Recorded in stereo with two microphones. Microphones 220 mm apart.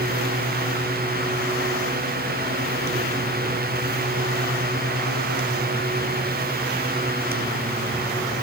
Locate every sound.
Only background noise.